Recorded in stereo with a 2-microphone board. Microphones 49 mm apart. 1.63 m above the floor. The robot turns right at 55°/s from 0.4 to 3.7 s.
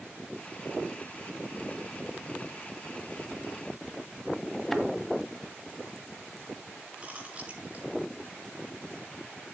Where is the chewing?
30° right (ahead or behind), 5.5 m.